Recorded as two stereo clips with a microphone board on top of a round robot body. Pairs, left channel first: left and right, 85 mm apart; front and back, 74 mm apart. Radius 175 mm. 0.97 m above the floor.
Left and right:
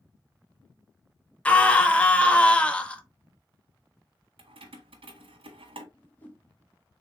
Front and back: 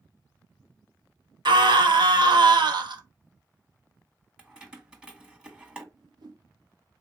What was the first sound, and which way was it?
A scream, 170° left.